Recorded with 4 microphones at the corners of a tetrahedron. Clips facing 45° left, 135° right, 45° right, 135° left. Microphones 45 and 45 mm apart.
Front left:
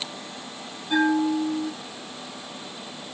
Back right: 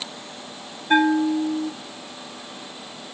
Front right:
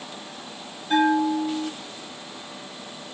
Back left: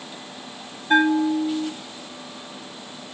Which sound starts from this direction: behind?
A bell, at 0.9 s.